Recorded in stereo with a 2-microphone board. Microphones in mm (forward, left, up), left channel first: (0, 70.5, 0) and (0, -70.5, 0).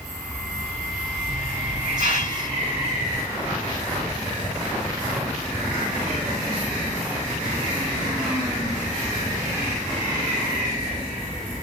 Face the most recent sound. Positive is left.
turn(degrees=-65)  # may be behind; listen again after turning